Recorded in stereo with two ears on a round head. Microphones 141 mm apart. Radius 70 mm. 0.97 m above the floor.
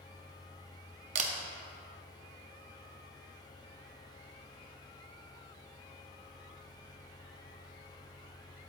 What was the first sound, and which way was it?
A camera shutter, 45° right (ahead or behind).